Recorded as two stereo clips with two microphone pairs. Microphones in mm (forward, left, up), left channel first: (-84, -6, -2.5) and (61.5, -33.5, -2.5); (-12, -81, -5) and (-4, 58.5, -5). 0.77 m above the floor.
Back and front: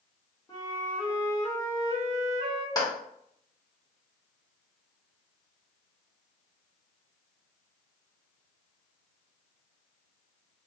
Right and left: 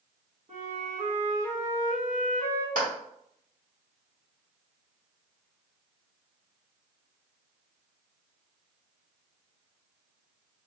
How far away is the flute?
About 1.4 m.